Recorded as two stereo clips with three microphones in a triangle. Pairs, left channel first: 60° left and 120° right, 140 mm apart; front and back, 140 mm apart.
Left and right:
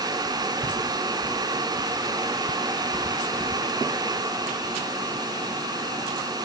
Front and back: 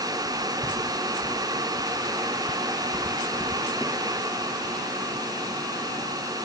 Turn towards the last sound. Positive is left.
No sound to turn to.